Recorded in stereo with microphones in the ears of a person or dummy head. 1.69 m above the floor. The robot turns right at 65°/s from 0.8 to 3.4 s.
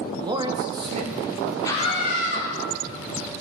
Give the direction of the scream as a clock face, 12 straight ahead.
11 o'clock.